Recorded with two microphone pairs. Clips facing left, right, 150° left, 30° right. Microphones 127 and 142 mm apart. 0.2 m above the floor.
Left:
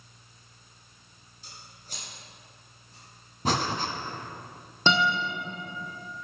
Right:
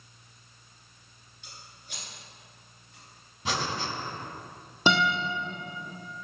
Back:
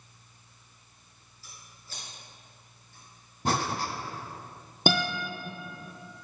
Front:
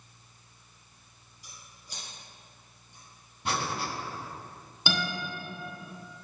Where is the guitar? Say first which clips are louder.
Even, back 6 dB; 170° right, 1.4 m.